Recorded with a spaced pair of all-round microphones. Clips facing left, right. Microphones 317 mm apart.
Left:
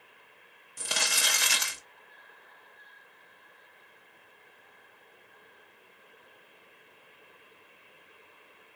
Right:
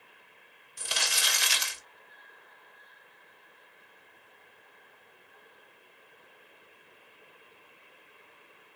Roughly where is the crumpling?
Left.